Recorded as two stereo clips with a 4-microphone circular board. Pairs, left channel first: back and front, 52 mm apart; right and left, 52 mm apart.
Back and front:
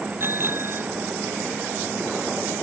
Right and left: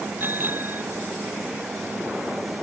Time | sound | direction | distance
0.2 | a bicycle bell | 40° left | ?